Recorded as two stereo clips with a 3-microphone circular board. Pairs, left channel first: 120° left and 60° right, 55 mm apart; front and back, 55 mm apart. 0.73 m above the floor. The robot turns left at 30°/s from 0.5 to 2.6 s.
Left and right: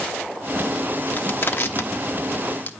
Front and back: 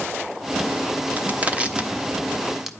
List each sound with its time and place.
1.1 s crushing: 140° left, 0.6 m; by 2.7 s 95° left, 0.6 m